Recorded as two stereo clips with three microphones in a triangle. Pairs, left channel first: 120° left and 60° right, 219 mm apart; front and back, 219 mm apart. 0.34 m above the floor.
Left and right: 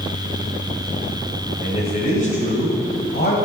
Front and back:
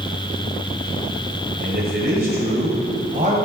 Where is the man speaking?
175° left, 1.8 m; by 3.4 s 135° left, 2 m.